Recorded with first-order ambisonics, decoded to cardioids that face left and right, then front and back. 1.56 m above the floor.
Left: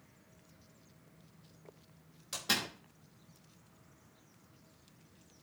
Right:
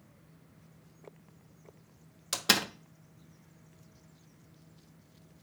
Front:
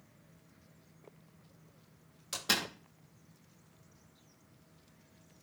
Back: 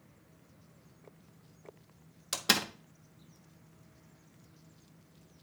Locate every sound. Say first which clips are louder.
2.3 s a door slam: right 6 dB, back 3 dB; 120° right, 0.8 m